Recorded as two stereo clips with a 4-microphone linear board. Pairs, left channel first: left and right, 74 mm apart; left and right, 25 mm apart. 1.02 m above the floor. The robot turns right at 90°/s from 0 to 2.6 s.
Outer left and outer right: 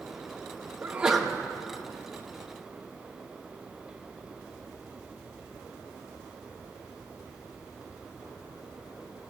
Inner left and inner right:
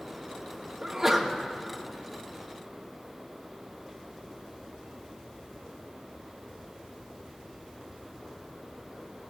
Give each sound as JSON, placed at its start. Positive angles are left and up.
{"t": 0.8, "sound": "a sneeze", "azimuth_deg": -35, "distance_m": 1.2}